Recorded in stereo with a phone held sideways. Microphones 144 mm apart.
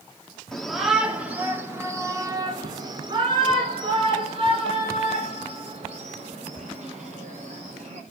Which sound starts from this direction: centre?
A shout, at 0.5 s.